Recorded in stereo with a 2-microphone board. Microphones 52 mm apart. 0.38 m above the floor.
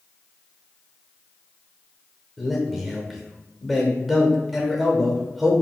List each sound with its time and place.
2.4 s a man speaking: 5° right (ahead or behind), 0.9 m